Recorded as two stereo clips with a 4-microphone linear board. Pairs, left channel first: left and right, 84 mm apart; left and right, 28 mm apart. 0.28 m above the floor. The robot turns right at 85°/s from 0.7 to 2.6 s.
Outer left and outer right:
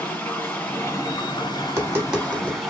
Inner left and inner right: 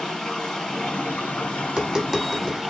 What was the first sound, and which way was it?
Running water, 25° left.